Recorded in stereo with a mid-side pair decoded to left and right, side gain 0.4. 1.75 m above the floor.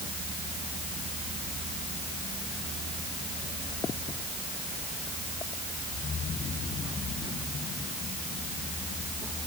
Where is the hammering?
I don't hear hammering.